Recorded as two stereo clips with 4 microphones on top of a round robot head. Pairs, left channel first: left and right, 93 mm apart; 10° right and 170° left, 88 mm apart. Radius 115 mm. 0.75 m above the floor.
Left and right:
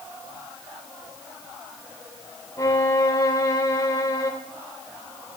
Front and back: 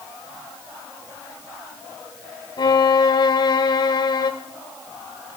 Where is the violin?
25° left, 0.7 m.